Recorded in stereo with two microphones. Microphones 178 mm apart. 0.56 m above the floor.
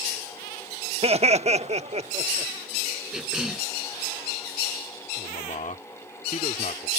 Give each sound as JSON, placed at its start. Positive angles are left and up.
{"t": 1.0, "sound": "laughter", "side_deg": -35}
{"t": 3.1, "sound": "a cough", "side_deg": -5}
{"t": 5.2, "sound": "a man speaking", "side_deg": 45}